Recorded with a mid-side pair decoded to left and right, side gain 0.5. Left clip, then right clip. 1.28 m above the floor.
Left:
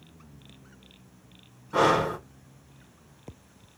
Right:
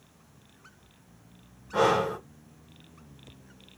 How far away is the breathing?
About 1.8 m.